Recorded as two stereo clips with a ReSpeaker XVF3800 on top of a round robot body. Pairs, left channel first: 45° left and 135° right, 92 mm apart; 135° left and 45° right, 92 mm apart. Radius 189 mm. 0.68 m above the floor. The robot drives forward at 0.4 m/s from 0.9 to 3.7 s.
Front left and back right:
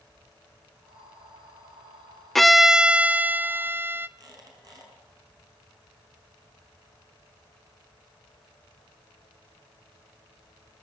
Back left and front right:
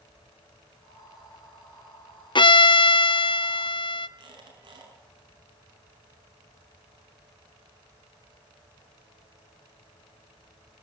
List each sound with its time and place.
2.4 s a violin: 130° left, 0.6 m; by 4.1 s 160° left, 1.0 m
4.2 s a squeak: 85° right, 6 m